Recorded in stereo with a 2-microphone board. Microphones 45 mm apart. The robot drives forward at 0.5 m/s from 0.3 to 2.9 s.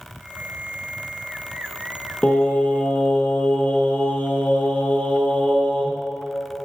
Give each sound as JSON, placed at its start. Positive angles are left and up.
{"t": 2.2, "sound": "singing", "side_deg": 35, "distance_m": 1.4}